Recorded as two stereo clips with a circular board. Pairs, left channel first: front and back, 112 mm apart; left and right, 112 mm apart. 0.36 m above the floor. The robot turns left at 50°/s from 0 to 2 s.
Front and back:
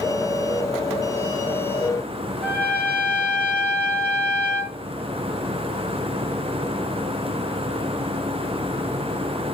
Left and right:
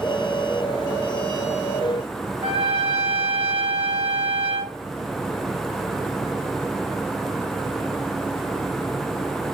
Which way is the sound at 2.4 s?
75° right.